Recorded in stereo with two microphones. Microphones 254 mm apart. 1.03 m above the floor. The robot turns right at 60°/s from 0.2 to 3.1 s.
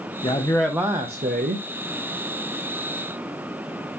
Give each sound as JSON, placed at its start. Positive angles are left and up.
{"t": 0.2, "sound": "a man speaking", "azimuth_deg": 150, "distance_m": 0.7}